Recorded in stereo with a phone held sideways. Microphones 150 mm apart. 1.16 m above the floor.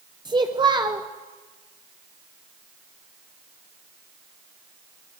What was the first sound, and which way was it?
A child speaking, 30° right (ahead or behind).